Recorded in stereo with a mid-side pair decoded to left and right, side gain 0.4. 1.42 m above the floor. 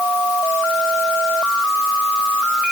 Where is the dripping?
No dripping in this recording.